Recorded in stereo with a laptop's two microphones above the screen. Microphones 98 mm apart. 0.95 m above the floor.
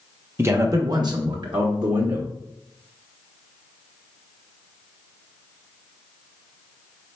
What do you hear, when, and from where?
0.4 s a man speaking: 25° right (ahead or behind), 0.5 m; by 2.2 s 40° right (ahead or behind), 0.9 m